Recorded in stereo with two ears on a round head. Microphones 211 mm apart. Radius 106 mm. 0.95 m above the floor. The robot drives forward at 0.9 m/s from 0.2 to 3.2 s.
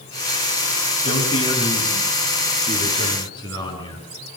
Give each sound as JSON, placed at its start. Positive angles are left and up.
{"t": 1.1, "sound": "a man speaking", "side_deg": 25, "distance_m": 8.0}